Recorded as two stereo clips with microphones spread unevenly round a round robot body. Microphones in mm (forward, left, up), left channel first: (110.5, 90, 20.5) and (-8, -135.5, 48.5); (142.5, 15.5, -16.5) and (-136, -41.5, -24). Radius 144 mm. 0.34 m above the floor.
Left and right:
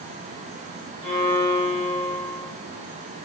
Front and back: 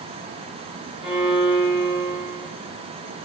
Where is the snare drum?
I don't hear a snare drum.